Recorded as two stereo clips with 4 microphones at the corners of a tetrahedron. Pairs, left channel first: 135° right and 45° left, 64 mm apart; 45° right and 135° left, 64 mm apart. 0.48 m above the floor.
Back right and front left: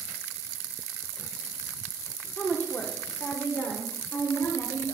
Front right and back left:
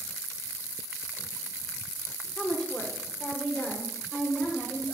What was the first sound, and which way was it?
A woman speaking, 100° right.